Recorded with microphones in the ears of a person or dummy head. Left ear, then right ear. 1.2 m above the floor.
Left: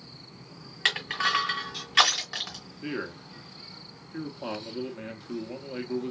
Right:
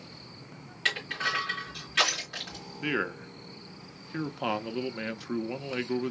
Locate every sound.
0.8 s crushing: 45° left (ahead or behind), 2 m
2.8 s a man speaking: 40° right (ahead or behind), 0.7 m